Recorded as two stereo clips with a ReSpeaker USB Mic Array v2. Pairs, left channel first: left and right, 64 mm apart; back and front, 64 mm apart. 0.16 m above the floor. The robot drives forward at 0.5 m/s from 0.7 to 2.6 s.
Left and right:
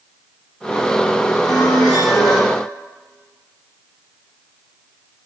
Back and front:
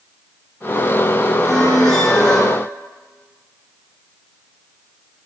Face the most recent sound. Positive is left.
turn(degrees=100)